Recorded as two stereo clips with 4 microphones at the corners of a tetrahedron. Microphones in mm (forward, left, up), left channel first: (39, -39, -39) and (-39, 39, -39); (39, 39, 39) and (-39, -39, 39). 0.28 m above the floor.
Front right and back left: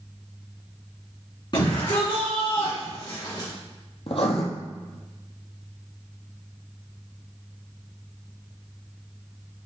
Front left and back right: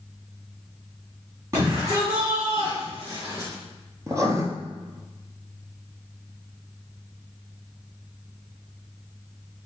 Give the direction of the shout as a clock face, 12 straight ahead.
3 o'clock.